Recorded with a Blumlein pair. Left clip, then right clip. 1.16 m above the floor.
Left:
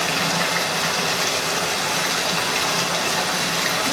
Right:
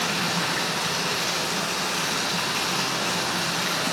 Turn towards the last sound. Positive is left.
turn(degrees=60)